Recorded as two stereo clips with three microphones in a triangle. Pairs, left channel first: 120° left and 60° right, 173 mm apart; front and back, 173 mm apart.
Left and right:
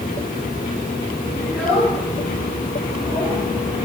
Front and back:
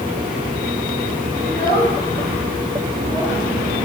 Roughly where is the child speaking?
Behind.